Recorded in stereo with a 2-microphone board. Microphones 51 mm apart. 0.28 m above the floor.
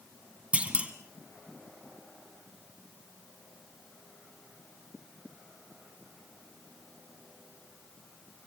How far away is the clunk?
About 1.7 m.